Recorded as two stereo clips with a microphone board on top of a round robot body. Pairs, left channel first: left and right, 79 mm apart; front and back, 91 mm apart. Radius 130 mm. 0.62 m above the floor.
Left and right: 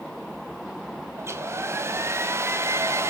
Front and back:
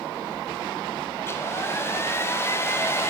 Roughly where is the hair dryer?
Ahead right.